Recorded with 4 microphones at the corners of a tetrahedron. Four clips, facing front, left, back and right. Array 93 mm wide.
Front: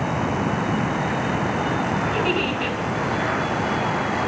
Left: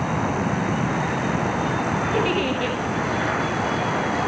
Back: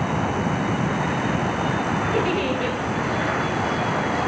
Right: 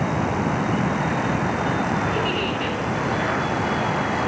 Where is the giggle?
150° left, 4 m.